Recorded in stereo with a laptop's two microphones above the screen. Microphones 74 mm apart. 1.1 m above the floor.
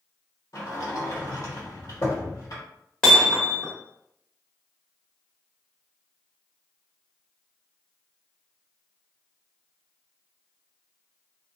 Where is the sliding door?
55° left (ahead or behind), 1.3 m.